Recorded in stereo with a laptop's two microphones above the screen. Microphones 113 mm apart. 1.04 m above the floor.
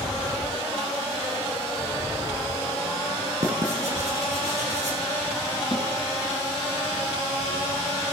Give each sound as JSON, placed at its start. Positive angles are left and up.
{"t": 3.4, "sound": "writing", "side_deg": -85, "distance_m": 5.0}
{"t": 5.7, "sound": "a snare drum", "side_deg": 40, "distance_m": 4.0}